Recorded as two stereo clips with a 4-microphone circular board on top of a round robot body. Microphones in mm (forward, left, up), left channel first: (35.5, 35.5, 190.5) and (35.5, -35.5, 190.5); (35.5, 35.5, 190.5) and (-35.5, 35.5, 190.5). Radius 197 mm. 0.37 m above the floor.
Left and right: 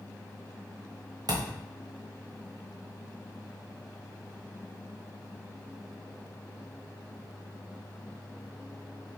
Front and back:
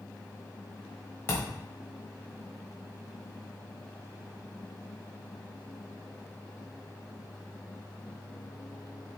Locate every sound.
1.3 s a thud: 60° right, 1.2 m